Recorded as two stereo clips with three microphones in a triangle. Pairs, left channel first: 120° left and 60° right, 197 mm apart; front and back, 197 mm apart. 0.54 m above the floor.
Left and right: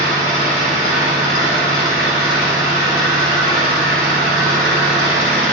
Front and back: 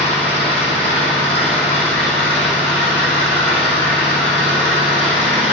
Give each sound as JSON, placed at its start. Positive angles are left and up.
{"t": 0.0, "sound": "an engine running", "azimuth_deg": -100, "distance_m": 3.5}